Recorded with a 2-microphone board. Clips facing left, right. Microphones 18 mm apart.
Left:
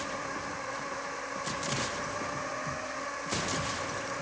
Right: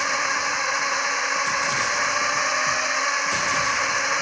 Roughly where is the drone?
Right.